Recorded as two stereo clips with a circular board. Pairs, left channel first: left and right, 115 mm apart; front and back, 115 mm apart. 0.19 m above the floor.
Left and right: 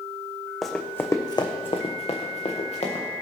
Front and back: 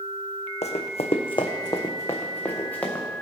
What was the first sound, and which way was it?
Running footsteps, straight ahead.